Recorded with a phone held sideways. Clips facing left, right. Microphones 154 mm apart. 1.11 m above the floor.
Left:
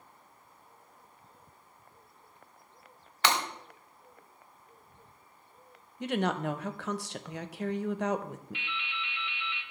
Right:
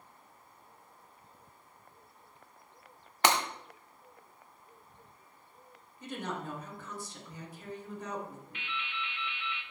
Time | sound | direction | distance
3.2 | breaking glass | 45° right (ahead or behind) | 1.6 m
6.0 | a woman speaking | 75° left (ahead or behind) | 0.6 m
8.5 | dripping | 45° right (ahead or behind) | 1.5 m